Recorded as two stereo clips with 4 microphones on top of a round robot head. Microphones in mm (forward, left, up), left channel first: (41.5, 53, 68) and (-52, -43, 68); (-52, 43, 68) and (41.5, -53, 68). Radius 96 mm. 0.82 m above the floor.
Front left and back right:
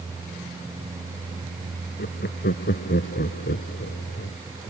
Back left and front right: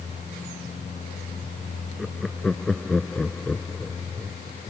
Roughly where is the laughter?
Ahead left.